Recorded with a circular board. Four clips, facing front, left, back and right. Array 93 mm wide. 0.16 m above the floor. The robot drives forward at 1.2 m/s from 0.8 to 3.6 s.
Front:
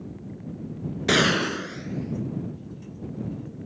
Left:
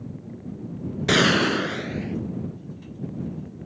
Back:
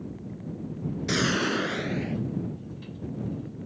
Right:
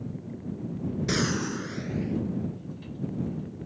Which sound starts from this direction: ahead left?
A gunshot, at 1.1 s.